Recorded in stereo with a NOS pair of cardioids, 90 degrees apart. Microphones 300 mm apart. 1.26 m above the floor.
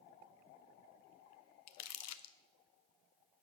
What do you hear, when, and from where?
1.7 s crumpling: 60° left, 0.6 m